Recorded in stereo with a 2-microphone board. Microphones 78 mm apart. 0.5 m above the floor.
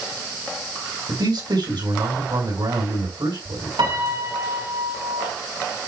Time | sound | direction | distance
1.1 | a man speaking | 70° right (ahead or behind) | 4.5 m
3.8 | a piano | 70° right (ahead or behind) | 3 m